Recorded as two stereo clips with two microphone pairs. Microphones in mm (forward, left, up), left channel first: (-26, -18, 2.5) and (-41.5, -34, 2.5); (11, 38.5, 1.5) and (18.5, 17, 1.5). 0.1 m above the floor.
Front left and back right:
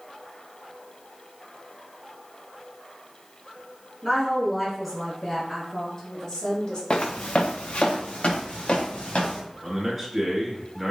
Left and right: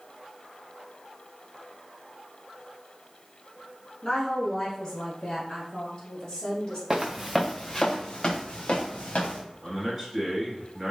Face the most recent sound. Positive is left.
turn(degrees=-95)